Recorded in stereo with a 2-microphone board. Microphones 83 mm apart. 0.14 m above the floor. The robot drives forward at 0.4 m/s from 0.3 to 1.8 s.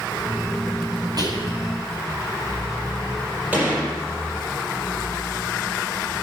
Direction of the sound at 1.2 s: 55° right (ahead or behind).